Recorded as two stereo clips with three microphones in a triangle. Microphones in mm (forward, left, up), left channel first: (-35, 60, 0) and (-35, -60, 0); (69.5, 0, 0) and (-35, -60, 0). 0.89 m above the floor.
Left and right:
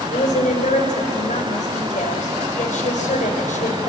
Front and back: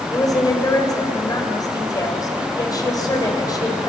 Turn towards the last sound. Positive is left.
turn(degrees=90)